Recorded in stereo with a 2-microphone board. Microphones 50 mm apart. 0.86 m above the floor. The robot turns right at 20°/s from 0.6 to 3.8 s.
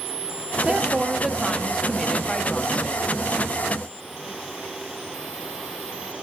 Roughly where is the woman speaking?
Ahead.